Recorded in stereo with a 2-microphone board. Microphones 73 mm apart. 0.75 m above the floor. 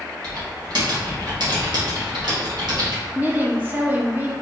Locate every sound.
0.2 s typing on a keyboard: 80° right, 1.7 m
3.1 s a woman speaking: 25° right (ahead or behind), 0.8 m